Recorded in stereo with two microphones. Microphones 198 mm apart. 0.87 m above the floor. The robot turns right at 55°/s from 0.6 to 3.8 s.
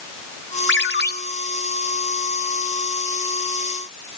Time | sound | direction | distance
0.7 | a ringtone | 75° left (ahead or behind) | 1.2 m